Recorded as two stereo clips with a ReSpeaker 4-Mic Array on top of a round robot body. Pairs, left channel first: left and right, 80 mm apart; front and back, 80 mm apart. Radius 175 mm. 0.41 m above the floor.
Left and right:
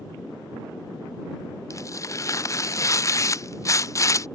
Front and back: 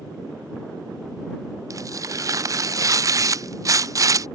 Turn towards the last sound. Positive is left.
turn(degrees=140)